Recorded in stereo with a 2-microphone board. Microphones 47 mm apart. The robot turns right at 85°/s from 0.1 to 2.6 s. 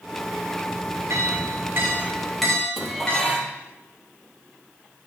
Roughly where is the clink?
Right.